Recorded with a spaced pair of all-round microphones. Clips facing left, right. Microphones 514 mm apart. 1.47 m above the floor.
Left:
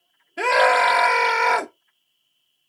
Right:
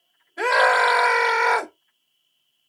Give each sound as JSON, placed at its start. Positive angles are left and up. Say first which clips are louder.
{"t": 0.4, "sound": "a scream", "louder": "left 2 dB", "side_deg": 50, "distance_m": 0.9}